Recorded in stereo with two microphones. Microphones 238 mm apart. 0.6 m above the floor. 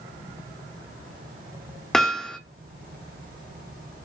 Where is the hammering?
Centre (ahead or behind), 0.5 m.